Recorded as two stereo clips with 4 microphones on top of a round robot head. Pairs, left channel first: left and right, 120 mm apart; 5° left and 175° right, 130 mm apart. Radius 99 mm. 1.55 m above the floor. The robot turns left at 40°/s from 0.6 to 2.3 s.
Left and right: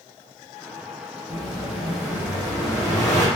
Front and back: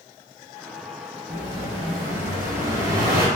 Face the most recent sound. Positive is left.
turn(degrees=180)